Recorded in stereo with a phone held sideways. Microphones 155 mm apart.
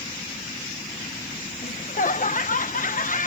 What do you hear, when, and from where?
1.6 s laughter: 60° left (ahead or behind)